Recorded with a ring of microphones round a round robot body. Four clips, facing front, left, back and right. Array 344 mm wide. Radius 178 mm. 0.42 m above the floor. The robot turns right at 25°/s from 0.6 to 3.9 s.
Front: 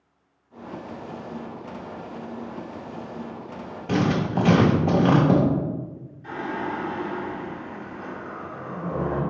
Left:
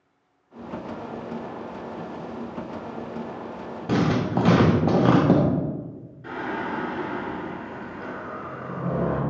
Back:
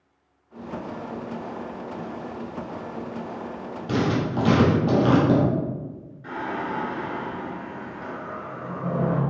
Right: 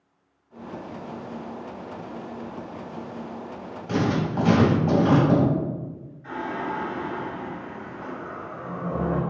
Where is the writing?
80° left, 0.8 m.